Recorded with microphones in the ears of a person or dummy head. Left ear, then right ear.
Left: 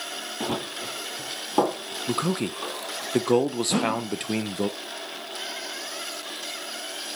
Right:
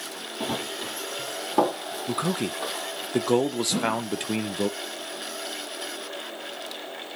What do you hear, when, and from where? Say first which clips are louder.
0.4 s running footsteps: right 1 dB; 15° right (ahead or behind), 2.5 m; by 3.1 s 10° right (ahead or behind), 4 m
2.1 s a man speaking: left 1 dB; centre (ahead or behind), 0.8 m
3.7 s a whoosh: left 1 dB; 45° left (ahead or behind), 1.2 m